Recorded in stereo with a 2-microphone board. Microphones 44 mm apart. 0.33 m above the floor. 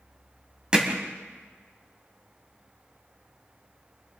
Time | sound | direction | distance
0.7 | hammering | 15° right (ahead or behind) | 1.8 m